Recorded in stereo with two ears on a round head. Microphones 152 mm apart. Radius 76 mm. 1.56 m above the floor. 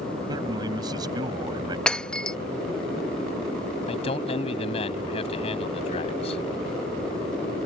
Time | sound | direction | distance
0.3 | a man speaking | 25° right (ahead or behind) | ?
1.9 | breaking glass | 5° left (ahead or behind) | ?
3.9 | a man speaking | 35° left (ahead or behind) | ?